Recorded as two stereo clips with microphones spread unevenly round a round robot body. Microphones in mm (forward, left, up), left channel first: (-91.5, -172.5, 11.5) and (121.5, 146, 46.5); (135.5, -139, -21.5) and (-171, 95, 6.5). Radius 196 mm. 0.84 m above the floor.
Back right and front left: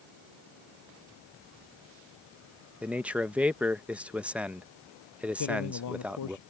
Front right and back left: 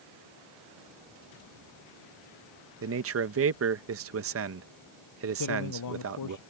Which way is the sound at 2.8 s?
150° left.